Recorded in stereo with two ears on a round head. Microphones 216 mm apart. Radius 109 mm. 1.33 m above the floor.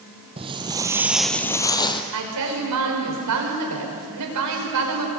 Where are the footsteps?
25° right (ahead or behind), 1.8 m; by 2.0 s 20° left (ahead or behind), 1.8 m.